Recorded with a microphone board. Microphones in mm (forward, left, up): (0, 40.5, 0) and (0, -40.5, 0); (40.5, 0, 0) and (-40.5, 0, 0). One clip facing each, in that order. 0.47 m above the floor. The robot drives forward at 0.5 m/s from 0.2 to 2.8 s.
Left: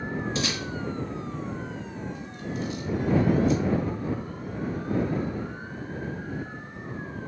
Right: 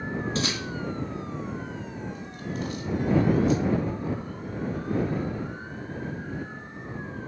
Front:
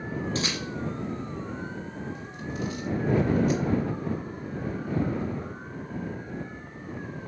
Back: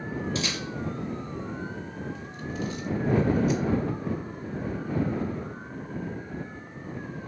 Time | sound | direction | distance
0.3 | a camera shutter | 45° right | 1.9 m